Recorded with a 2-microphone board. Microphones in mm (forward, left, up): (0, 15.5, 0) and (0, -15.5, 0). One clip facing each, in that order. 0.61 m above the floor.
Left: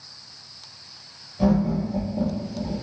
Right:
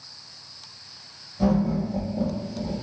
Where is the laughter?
15° left (ahead or behind), 1.1 m.